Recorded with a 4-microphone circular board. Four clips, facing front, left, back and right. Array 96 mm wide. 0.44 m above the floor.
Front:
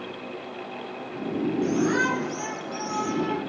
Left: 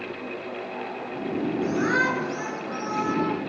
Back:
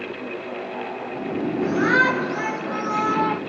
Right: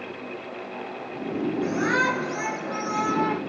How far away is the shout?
About 4.5 m.